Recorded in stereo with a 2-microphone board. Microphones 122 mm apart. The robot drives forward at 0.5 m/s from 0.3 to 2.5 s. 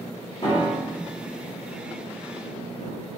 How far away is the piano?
About 1.1 m.